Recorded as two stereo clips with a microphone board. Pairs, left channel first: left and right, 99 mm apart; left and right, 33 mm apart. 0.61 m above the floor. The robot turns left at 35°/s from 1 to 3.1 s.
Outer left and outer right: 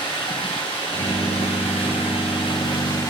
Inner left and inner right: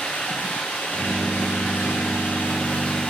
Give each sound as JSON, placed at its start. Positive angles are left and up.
{"t": 0.0, "sound": "running water", "azimuth_deg": 120, "distance_m": 6.5}